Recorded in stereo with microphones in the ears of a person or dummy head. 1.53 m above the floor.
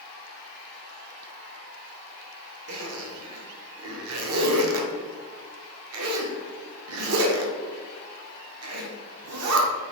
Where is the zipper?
70° right (ahead or behind), 0.5 m.